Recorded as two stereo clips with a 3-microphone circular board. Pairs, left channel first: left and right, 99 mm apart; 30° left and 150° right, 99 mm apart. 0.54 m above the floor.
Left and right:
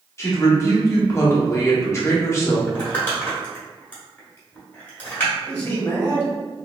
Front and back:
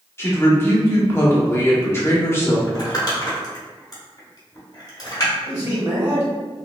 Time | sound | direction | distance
0.2 | a woman speaking | 65° left | 0.9 m
2.7 | crumpling | 30° left | 1.3 m
5.4 | a man speaking | 165° left | 1.5 m